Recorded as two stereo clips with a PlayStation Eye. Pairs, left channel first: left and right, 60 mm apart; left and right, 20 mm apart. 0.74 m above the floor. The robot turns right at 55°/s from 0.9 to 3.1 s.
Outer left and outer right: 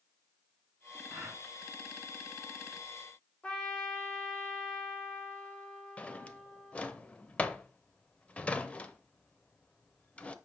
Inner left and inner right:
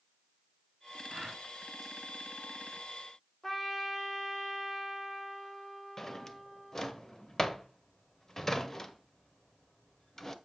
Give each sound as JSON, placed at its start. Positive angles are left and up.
{"t": 1.1, "sound": "a gasp", "side_deg": -55, "distance_m": 2.5}
{"t": 3.4, "sound": "a trumpet", "side_deg": 20, "distance_m": 1.3}
{"t": 6.0, "sound": "a drawer", "side_deg": 20, "distance_m": 0.6}